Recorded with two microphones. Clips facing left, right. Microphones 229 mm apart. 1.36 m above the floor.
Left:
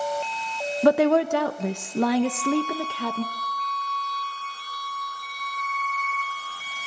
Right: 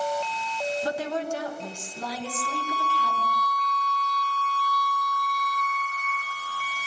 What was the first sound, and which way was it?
A woman speaking, 70° left (ahead or behind).